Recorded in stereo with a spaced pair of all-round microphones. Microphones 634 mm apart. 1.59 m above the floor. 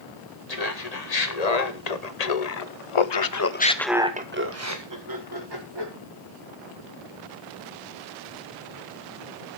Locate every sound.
0.5 s laughter: 75° left (ahead or behind), 2 m; by 5.9 s 40° right (ahead or behind), 1.9 m